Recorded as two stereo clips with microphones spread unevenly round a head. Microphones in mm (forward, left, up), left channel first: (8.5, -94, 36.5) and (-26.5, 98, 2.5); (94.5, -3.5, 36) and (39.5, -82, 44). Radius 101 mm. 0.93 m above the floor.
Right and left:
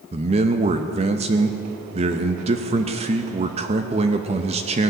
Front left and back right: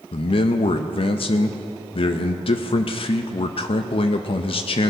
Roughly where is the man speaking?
Ahead left.